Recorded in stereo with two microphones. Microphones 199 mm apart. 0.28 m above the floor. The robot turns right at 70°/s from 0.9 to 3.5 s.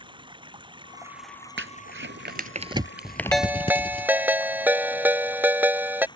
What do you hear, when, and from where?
0.0 s running water: 25° right; by 6.2 s 160° left
1.6 s crumpling: 75° right (ahead or behind); by 4.1 s 30° left (ahead or behind)
3.3 s a ringtone: 5° left (ahead or behind); by 6.1 s 10° right (ahead or behind)